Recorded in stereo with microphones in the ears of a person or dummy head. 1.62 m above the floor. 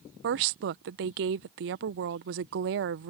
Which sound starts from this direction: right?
A woman speaking, at 0.2 s.